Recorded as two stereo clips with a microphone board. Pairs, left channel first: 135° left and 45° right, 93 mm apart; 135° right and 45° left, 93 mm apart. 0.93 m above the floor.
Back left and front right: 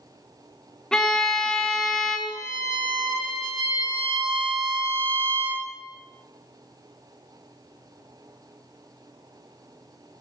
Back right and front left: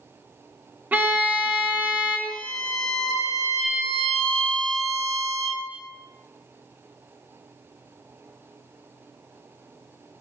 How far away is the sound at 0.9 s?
About 0.8 m.